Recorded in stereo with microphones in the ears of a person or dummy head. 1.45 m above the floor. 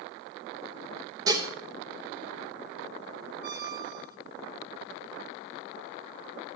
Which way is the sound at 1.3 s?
20° right (ahead or behind).